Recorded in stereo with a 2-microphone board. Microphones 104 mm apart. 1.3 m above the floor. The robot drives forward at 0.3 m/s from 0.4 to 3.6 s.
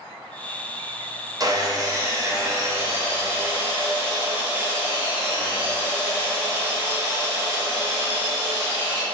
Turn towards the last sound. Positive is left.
turn(degrees=-20)  # may be behind; listen again after turning